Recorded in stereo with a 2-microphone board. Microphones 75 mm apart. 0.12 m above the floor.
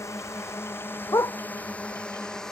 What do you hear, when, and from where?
0.0 s a drone: 40° left (ahead or behind); by 2.5 s 5° left (ahead or behind)
1.1 s a dog barking: 45° left (ahead or behind)